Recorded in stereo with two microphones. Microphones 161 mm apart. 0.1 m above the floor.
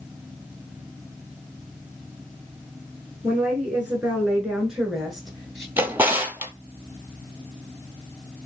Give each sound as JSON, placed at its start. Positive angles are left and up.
{"t": 3.2, "sound": "a woman speaking", "side_deg": -10, "distance_m": 1.3}
{"t": 5.8, "sound": "a drawer", "side_deg": -15, "distance_m": 0.7}